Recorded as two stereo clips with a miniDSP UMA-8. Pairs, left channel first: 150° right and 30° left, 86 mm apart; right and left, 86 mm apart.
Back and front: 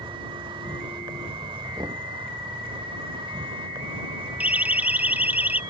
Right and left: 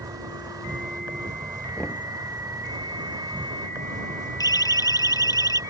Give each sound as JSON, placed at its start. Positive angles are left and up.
{"t": 0.0, "sound": "an insect", "azimuth_deg": 45}
{"t": 1.8, "sound": "knocking", "azimuth_deg": -15}
{"t": 4.4, "sound": "a siren", "azimuth_deg": -45}